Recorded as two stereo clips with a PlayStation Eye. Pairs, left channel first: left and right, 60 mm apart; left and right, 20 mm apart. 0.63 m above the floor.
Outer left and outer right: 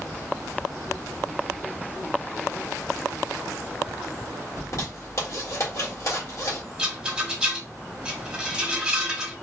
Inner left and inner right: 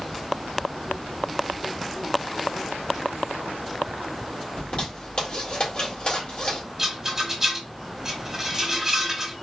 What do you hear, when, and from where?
4.6 s a zipper: 55° left (ahead or behind), 2.0 m
6.8 s a rattle: 15° right (ahead or behind), 1.4 m